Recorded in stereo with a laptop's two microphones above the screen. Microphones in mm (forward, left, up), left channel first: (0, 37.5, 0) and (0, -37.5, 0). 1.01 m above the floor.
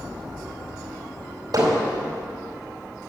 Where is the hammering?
60° right (ahead or behind), 3.5 m.